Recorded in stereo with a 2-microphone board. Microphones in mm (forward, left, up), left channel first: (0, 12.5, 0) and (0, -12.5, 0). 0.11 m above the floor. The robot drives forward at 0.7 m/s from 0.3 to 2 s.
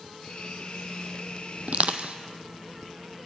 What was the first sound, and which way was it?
Crushing, 65° right (ahead or behind).